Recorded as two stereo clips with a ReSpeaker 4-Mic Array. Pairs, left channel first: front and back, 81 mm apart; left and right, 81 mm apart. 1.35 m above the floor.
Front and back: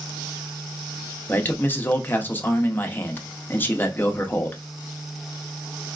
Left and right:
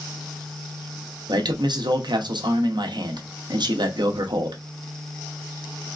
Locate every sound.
1.3 s a man speaking: 65° right, 0.6 m